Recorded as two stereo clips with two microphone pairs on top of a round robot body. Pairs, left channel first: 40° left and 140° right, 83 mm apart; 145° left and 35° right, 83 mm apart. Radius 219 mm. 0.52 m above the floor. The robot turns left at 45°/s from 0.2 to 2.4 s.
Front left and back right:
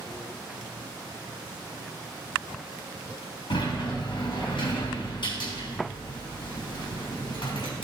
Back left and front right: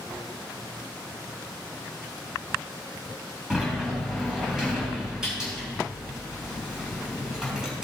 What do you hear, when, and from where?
3.5 s a sliding door: 45° left, 3.5 m